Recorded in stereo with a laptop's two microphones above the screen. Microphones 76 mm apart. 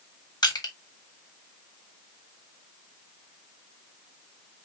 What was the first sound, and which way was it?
Crushing, 60° left (ahead or behind).